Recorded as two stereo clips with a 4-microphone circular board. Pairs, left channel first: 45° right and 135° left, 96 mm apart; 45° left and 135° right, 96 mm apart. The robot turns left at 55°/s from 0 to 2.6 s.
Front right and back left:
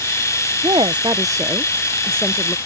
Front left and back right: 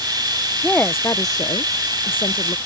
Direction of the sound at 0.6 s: 125° left.